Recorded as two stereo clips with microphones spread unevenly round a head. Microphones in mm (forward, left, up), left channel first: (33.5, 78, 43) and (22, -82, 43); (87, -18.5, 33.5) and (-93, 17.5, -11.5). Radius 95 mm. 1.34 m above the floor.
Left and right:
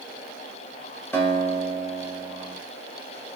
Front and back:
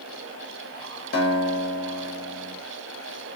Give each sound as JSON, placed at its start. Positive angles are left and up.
{"t": 1.1, "sound": "a guitar", "azimuth_deg": 5, "distance_m": 1.2}